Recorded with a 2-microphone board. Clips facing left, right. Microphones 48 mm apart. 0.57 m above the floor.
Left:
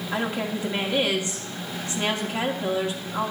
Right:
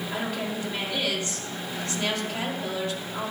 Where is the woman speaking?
25° left (ahead or behind), 1.4 m.